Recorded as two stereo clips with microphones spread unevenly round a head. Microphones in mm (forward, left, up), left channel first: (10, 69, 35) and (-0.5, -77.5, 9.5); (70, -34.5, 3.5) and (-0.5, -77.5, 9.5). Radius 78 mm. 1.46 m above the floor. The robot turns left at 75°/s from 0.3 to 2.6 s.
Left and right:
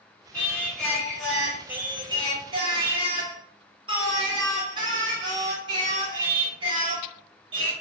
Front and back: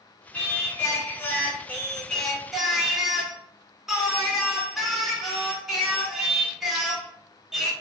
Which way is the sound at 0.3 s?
90° left.